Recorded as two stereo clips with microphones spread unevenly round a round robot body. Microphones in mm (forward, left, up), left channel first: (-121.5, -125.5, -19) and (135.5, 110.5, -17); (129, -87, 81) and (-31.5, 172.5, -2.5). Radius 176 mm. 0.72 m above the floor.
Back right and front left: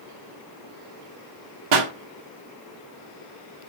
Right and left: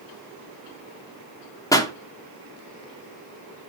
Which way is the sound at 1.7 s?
30° left.